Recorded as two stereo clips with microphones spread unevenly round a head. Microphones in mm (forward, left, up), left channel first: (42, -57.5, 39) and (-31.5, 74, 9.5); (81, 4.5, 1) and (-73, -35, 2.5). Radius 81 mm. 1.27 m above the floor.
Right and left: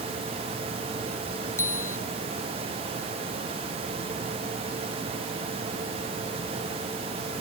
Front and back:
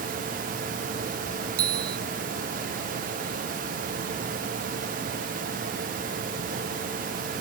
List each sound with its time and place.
1.6 s a bicycle bell: 135° right